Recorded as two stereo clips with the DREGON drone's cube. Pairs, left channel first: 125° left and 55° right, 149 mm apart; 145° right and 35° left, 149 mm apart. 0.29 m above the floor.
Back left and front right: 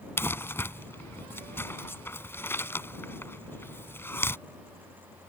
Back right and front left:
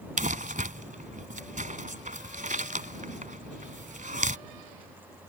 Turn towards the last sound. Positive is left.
turn(degrees=50)